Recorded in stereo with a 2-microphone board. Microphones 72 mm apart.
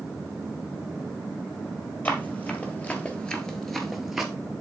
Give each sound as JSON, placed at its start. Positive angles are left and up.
{"t": 2.0, "sound": "running footsteps", "side_deg": 20, "distance_m": 1.7}